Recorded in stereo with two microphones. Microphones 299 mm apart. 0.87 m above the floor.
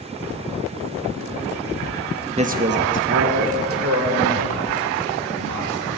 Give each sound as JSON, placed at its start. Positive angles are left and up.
{"t": 2.4, "sound": "a man speaking", "side_deg": -20, "distance_m": 0.7}